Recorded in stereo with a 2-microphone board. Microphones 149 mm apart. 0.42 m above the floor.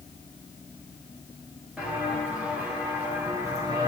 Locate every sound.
1.8 s footsteps: 5° right (ahead or behind), 5 m; by 3.9 s 25° right (ahead or behind), 2.5 m